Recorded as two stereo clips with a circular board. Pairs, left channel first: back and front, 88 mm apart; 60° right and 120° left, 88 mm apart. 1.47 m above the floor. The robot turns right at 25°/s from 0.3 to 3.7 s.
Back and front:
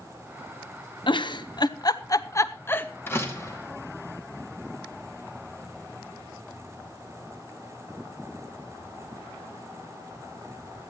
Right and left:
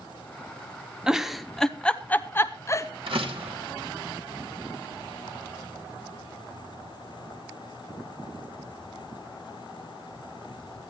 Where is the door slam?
115° left, 2 m; by 3.6 s 125° left, 2 m.